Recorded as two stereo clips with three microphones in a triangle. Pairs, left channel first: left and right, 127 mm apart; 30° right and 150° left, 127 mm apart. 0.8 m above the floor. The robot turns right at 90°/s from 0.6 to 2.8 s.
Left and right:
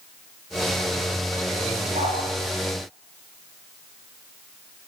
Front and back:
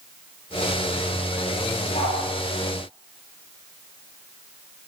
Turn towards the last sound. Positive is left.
turn(degrees=5)